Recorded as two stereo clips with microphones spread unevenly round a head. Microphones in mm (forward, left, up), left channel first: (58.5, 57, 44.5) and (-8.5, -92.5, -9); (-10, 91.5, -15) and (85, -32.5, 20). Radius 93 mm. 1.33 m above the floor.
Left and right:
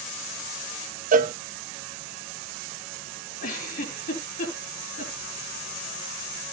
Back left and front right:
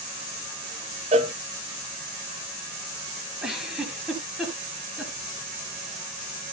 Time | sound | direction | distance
1.1 | a cowbell | 115° right | 0.9 m
3.4 | a giggle | 30° left | 6.5 m